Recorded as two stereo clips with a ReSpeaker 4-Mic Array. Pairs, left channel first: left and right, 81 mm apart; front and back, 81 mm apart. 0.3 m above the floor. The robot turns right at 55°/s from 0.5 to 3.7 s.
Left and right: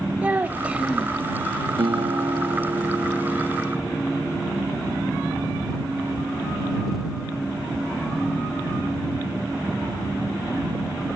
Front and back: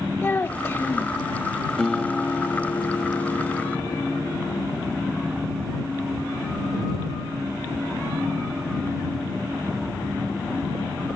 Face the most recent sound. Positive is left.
turn(degrees=15)